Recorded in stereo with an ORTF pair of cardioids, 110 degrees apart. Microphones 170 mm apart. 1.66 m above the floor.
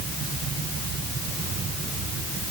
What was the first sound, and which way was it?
Only background noise.